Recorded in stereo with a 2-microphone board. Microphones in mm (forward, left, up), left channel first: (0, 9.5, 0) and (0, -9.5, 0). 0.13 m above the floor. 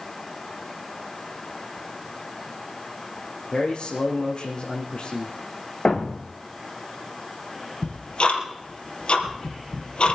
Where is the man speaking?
60° left (ahead or behind), 3 m.